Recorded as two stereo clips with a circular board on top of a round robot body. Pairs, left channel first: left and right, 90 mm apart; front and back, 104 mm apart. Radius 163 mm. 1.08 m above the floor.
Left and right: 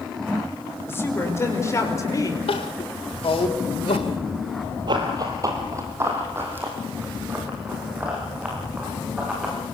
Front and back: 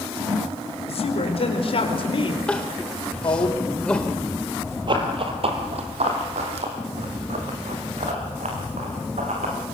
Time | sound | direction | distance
0.9 | a woman speaking | 25° left | 5.5 m
2.5 | crying | 80° left | 1.0 m
4.9 | running footsteps | 135° right | 2 m